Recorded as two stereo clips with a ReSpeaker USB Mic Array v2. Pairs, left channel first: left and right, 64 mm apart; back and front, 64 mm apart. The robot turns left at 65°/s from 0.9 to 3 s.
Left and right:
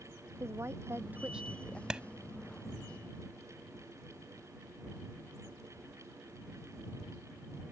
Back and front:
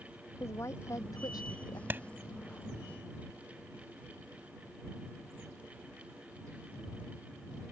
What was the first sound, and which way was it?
A woman speaking, 135° right.